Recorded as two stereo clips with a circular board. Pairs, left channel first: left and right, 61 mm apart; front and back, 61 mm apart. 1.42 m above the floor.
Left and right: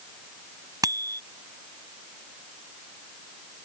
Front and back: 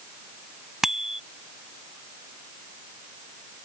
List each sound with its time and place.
0.8 s a bicycle bell: 100° right